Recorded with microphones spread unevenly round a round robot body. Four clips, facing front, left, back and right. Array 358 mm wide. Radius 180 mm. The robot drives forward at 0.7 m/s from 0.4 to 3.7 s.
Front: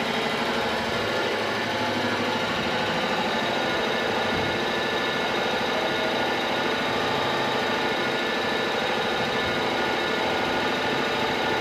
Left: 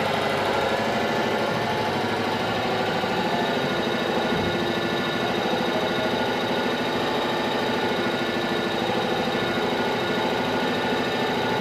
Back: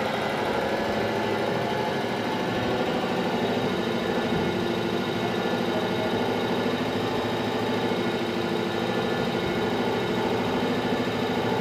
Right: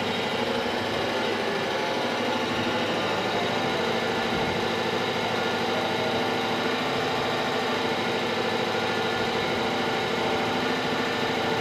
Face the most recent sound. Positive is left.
turn(degrees=140)